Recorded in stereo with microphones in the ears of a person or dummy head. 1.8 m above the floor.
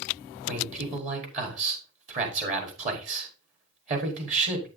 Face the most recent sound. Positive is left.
turn(degrees=-40)  # may be behind; listen again after turning